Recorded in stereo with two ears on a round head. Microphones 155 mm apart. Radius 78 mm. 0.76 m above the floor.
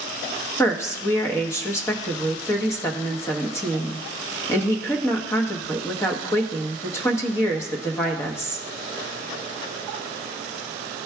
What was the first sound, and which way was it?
A woman speaking, 15° left (ahead or behind).